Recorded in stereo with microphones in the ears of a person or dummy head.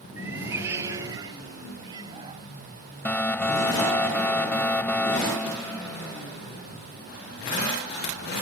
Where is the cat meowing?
10° right (ahead or behind); by 2.5 s 20° right (ahead or behind).